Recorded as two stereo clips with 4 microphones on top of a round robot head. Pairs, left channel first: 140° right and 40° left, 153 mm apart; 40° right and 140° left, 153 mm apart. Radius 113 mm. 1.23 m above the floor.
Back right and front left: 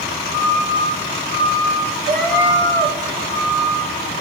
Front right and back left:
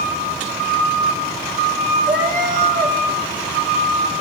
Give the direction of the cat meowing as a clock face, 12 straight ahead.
10 o'clock.